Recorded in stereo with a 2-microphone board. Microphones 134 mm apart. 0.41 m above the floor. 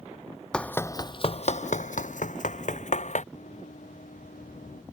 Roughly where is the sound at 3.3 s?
Left.